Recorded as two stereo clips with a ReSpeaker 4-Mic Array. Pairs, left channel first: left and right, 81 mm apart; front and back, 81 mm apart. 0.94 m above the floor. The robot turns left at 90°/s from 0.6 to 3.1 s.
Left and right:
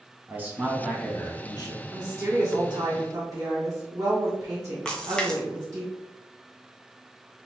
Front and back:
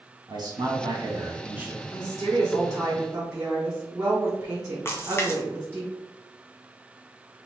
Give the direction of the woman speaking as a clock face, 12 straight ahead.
1 o'clock.